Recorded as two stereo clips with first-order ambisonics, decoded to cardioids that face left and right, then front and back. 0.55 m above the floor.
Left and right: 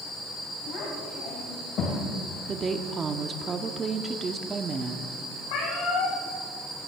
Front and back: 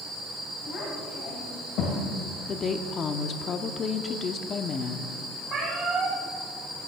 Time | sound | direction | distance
0.7 | a child speaking | 55° left | 3 m
2.5 | a woman speaking | 35° right | 0.7 m
5.5 | a cat meowing | 110° left | 5.5 m